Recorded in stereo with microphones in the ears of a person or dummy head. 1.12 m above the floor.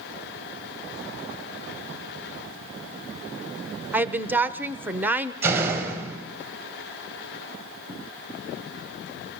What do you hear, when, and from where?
3.9 s a woman speaking: 10° right (ahead or behind), 0.7 m
5.4 s a door slam: 10° right (ahead or behind), 4.5 m